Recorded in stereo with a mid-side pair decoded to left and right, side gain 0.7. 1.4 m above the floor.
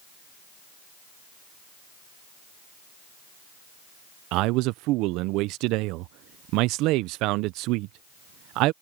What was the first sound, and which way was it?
A man speaking, 65° right.